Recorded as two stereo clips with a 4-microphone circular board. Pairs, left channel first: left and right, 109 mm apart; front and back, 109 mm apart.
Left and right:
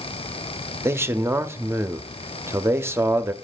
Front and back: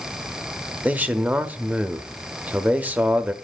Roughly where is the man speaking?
Behind right.